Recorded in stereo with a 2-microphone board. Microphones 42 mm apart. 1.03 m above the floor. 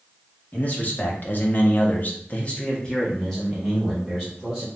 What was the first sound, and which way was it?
A man speaking, 40° left (ahead or behind).